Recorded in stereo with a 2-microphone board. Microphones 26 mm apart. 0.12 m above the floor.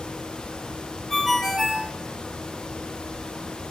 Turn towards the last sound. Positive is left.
turn(degrees=0)  # may be behind; listen again after turning